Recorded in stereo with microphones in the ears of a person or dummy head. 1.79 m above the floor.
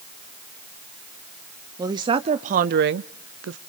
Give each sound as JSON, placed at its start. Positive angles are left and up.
{"t": 1.8, "sound": "a woman speaking", "side_deg": -25, "distance_m": 1.0}